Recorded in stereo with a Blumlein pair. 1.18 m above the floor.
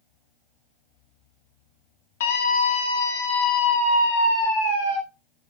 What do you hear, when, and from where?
2.2 s a scream: 55° left, 2 m